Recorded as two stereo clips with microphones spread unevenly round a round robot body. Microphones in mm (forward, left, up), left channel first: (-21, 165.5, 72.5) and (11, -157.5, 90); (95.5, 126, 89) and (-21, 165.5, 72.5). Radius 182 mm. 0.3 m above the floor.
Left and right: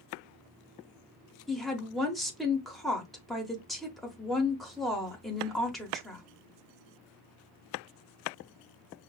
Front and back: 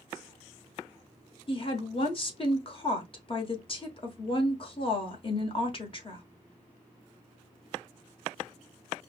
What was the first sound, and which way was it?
A woman speaking, 10° left.